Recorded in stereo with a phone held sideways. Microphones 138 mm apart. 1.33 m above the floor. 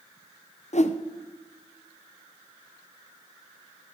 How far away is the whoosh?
About 0.5 m.